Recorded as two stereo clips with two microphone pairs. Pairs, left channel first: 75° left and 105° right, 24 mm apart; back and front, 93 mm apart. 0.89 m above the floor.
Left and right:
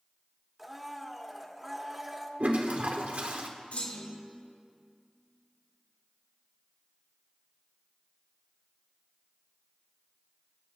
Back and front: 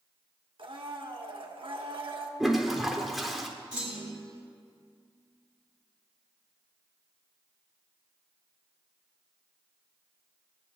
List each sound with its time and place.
0.6 s a blender: 20° right, 1.2 m
2.4 s a toilet flushing: 85° right, 1.2 m
3.7 s a clunk: 80° left, 5 m